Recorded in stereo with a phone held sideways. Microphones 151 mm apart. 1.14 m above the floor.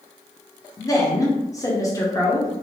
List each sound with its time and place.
0.8 s a woman speaking: 20° left (ahead or behind), 0.9 m